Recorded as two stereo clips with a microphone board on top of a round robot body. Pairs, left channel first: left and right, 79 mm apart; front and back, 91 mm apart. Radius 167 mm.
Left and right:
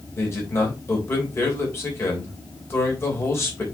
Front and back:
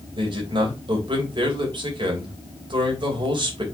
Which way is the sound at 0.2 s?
145° left.